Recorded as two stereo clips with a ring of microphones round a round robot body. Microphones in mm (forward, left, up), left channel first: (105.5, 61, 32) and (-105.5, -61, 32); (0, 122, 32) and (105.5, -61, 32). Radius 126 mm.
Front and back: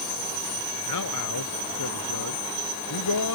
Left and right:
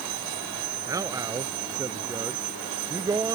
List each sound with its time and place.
0.9 s a man speaking: 15° left